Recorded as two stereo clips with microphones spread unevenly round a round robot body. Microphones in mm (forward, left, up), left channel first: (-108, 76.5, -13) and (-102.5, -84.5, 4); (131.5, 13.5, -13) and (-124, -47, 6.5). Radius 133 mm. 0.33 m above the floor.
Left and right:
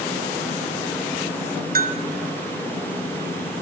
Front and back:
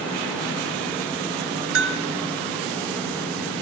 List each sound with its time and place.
1.8 s a bell: 120° right, 3 m